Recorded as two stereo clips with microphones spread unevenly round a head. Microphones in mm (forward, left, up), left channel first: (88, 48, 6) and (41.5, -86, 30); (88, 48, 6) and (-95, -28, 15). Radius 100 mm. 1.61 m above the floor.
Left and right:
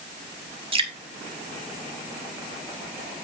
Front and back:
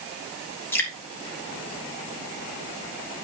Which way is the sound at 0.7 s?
60° right.